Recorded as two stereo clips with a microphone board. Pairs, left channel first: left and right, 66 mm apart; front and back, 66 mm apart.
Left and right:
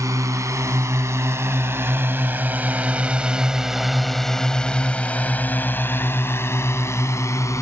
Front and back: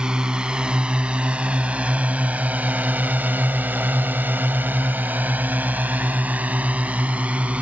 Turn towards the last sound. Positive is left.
turn(degrees=115)